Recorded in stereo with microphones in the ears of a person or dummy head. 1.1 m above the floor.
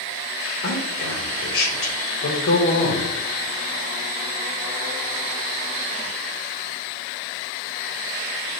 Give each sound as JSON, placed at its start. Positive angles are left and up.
{"t": 0.6, "sound": "a man speaking", "side_deg": 70, "distance_m": 1.3}